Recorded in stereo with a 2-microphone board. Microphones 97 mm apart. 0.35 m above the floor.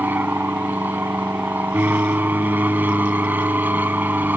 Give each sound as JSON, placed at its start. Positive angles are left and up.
{"t": 0.0, "sound": "an aircraft", "side_deg": -20}